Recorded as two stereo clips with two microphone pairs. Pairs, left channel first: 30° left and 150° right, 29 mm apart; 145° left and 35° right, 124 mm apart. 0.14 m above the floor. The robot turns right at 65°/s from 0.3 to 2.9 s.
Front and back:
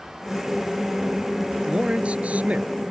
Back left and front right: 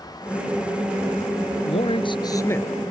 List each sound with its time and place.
1.7 s a man speaking: 155° left; by 2.7 s 140° right